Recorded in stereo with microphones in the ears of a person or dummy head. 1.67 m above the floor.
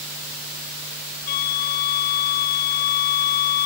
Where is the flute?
55° left (ahead or behind).